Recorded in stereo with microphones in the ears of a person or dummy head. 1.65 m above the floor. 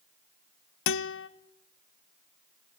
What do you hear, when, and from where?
0.9 s a guitar: 65° left (ahead or behind), 0.7 m